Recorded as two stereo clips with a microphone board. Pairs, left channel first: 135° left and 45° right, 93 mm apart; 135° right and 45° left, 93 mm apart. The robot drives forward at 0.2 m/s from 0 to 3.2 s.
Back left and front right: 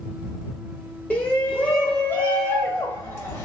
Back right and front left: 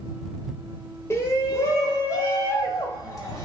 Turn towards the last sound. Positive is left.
turn(degrees=-170)